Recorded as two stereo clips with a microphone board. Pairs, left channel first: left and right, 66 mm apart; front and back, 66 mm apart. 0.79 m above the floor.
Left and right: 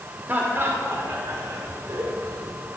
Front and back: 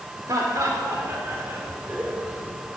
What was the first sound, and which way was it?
Laughter, 150° right.